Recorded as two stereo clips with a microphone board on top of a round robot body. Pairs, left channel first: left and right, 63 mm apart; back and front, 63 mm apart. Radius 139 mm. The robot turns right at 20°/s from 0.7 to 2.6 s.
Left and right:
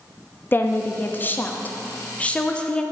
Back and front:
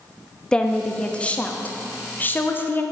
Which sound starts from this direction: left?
A woman speaking, at 0.5 s.